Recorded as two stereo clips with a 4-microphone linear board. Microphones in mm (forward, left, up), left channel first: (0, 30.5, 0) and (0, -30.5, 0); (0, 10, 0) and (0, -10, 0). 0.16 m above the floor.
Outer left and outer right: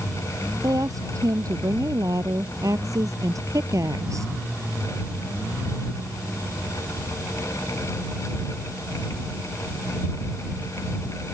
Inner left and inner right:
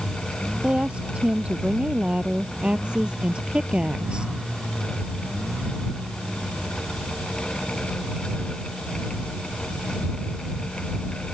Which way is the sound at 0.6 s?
75° right (ahead or behind).